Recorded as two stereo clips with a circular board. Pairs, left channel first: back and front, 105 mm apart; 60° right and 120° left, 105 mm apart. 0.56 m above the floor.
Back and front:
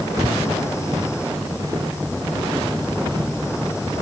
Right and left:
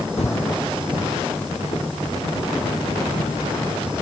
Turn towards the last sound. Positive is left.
turn(degrees=-50)